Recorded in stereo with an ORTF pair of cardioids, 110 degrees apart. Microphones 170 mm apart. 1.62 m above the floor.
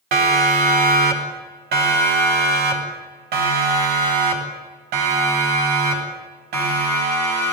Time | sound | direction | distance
0.1 | a siren | 60° right | 4.5 m